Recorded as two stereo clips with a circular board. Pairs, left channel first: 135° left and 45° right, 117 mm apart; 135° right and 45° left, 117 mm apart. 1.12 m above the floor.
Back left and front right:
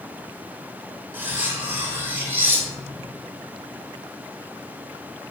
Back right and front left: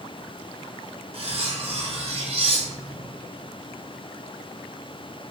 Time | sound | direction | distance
1.1 | cutlery clinking | 25° left | 0.5 m